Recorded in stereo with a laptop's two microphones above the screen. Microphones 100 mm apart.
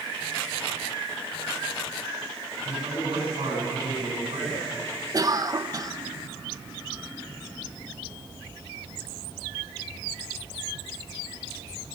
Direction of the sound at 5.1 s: 40° right (ahead or behind).